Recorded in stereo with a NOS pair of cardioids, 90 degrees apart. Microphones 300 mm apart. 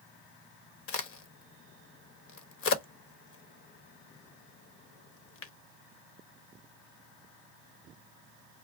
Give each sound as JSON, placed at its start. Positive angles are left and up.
{"t": 0.9, "sound": "a crack", "azimuth_deg": 50, "distance_m": 0.9}